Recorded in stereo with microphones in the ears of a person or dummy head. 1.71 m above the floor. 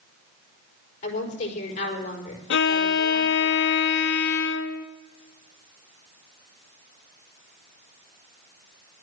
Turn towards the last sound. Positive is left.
turn(degrees=60)  # may be behind; listen again after turning